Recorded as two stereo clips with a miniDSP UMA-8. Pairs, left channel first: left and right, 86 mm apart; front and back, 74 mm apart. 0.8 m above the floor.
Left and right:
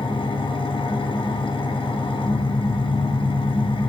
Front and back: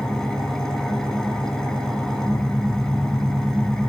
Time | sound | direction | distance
0.0 | an engine running | 85° left | 4.5 m